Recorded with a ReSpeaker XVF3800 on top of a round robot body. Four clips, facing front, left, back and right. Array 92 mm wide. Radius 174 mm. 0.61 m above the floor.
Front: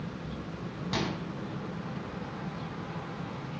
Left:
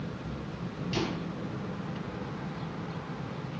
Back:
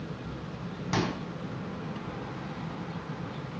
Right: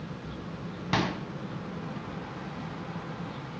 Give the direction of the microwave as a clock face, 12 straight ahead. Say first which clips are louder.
Right 4 dB, back 3 dB; 4 o'clock.